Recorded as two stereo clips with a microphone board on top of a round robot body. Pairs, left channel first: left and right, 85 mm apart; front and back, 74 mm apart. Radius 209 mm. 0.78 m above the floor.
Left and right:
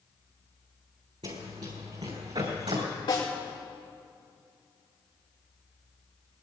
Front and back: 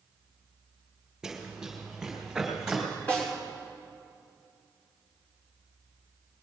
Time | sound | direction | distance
1.2 | running footsteps | 95° right | 4 m
3.1 | a snare drum | 70° left | 5 m